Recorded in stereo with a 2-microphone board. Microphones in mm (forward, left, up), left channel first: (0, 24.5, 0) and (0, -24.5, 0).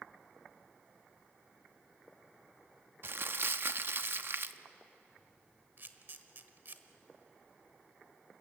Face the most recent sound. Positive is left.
turn(degrees=-50)  # may be behind; listen again after turning